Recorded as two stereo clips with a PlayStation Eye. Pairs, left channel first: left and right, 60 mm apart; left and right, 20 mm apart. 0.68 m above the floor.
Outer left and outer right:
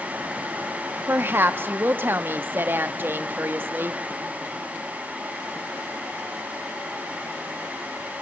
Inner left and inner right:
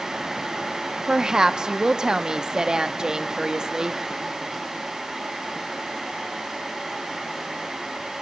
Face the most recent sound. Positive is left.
turn(degrees=-40)  # may be behind; listen again after turning